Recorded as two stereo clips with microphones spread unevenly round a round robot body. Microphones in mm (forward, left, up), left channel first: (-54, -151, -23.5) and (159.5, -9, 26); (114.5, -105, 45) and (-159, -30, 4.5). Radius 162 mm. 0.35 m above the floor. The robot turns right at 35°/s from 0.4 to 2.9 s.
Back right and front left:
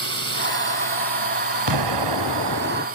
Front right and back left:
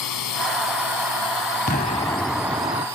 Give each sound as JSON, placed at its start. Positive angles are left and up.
{"t": 0.0, "sound": "a drone", "azimuth_deg": 0}
{"t": 1.7, "sound": "an explosion", "azimuth_deg": 50}